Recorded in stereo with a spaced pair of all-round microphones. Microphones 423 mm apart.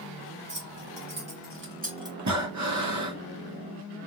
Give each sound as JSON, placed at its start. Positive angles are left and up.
{"t": 0.5, "sound": "keys jangling", "side_deg": -45, "distance_m": 2.0}
{"t": 2.2, "sound": "breathing", "side_deg": -40, "distance_m": 1.2}